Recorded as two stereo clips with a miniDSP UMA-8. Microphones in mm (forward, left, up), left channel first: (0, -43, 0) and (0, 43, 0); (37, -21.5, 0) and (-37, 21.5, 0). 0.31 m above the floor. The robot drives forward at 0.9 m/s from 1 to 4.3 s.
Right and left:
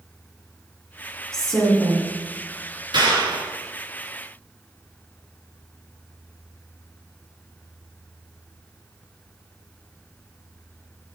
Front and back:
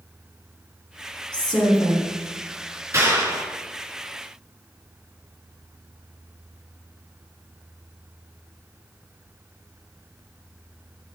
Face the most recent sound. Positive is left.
turn(degrees=115)